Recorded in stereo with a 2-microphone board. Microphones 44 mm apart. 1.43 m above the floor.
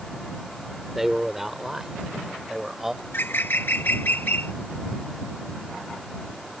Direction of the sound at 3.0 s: 55° left (ahead or behind).